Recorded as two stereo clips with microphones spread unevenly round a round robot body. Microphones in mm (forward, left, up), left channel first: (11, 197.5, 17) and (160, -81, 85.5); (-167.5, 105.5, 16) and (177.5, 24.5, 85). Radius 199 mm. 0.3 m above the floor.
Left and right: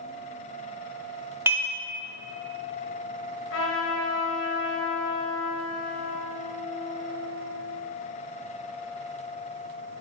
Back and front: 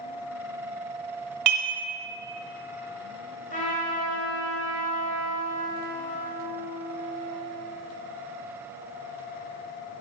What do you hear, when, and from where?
1.5 s dishes clattering: 25° left, 1.1 m
3.5 s a trumpet: 115° left, 1.2 m